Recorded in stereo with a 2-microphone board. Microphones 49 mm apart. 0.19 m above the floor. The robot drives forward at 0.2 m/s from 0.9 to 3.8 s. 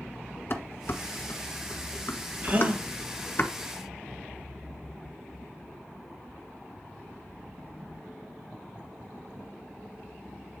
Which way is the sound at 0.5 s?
50° left (ahead or behind).